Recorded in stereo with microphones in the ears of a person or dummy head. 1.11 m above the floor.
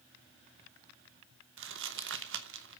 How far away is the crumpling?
About 0.8 m.